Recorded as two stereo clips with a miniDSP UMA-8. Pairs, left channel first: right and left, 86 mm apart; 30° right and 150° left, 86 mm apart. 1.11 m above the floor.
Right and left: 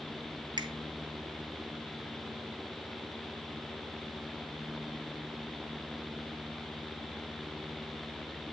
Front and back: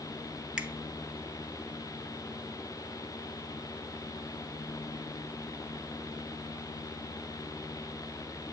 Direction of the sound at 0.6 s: 75° left.